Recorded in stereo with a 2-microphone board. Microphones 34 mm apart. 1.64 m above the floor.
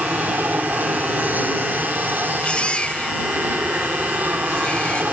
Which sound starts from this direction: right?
An aircraft, at 0.0 s.